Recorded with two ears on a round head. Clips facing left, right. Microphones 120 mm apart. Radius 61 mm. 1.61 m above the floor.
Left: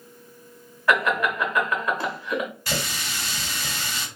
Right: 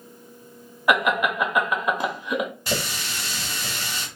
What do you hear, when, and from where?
0.9 s laughter: 15° right (ahead or behind), 0.9 m
2.7 s a running tap: 15° right (ahead or behind), 1.8 m